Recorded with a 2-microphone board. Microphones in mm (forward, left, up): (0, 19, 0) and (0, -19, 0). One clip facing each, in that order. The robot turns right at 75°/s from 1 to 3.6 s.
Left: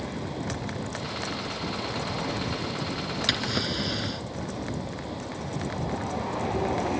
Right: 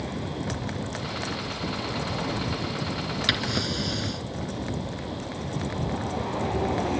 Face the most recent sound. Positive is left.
turn(degrees=10)  # may be behind; listen again after turning